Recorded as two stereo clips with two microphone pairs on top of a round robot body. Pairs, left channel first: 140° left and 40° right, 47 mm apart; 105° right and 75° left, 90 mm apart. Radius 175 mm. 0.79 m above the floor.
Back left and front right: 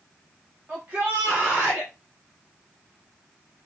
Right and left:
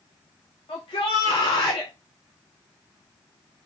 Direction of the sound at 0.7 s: 95° right.